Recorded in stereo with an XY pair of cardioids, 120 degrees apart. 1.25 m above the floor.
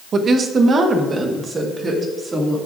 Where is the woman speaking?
40° right, 1.0 m; by 2.6 s 30° right, 3 m.